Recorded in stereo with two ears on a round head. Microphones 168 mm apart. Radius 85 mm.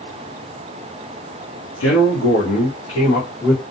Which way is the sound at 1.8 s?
75° left (ahead or behind).